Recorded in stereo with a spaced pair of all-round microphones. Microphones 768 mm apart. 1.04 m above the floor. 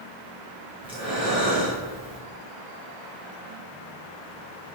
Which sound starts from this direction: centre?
Breathing, at 0.8 s.